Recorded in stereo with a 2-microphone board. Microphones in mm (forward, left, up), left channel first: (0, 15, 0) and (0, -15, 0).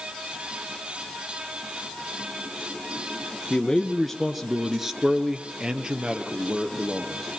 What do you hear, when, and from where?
3.5 s a man speaking: 25° left (ahead or behind), 1.4 m; by 7.2 s 35° right (ahead or behind), 3 m